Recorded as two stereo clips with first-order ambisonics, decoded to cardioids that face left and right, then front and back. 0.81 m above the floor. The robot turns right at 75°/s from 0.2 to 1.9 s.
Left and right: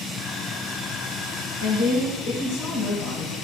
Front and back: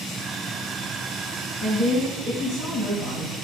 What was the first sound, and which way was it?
A woman speaking, 110° left.